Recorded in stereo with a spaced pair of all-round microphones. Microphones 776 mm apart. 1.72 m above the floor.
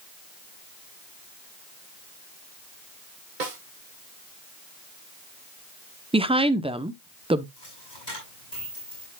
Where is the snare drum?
75° right (ahead or behind), 1.7 m.